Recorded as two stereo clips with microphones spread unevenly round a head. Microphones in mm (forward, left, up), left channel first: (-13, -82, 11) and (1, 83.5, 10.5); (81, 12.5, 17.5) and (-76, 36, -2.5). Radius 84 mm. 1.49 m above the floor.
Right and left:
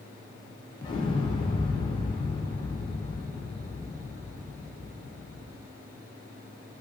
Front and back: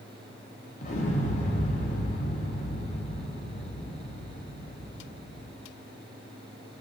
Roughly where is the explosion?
Ahead right.